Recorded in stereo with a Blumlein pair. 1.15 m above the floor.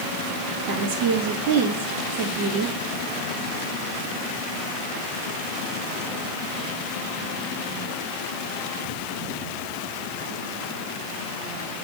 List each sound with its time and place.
0.7 s a woman speaking: 45° right, 1.8 m